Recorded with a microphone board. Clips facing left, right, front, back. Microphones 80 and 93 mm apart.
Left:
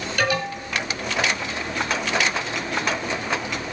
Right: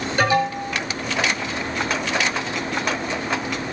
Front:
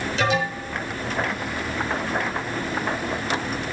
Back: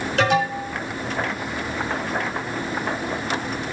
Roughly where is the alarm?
Behind right.